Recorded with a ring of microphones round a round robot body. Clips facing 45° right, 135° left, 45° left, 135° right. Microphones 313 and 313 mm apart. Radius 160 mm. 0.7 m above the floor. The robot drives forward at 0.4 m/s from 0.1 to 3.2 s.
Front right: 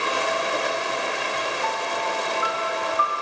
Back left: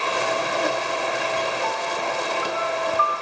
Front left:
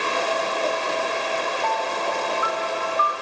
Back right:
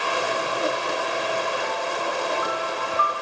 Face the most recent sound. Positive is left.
turn(degrees=-100)